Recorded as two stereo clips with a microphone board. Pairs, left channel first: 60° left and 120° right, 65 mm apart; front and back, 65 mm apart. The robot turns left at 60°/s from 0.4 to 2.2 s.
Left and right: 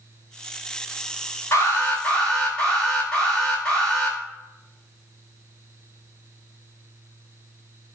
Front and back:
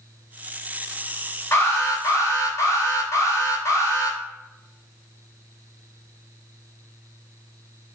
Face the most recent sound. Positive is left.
turn(degrees=-5)